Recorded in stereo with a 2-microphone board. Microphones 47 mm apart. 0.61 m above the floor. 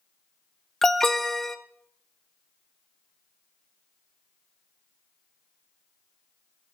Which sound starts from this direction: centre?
An alarm, at 0.8 s.